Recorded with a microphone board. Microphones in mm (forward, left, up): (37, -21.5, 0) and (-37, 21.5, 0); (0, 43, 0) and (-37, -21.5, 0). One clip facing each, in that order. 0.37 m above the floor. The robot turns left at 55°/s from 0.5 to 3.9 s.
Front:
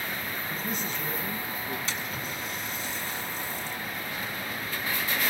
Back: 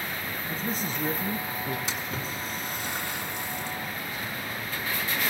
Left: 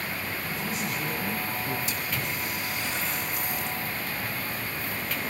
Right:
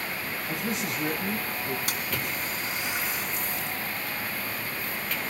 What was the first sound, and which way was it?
A man speaking, 150° right.